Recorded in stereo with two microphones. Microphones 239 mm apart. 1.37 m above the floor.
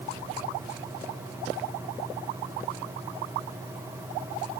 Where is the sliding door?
I don't hear a sliding door.